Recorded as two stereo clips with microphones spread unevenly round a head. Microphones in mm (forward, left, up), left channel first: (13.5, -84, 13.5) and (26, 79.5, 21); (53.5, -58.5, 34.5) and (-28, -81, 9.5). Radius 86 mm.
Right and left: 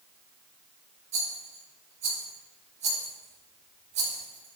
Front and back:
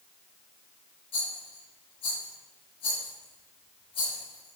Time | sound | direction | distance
1.1 | a rattle | 40° left | 5 m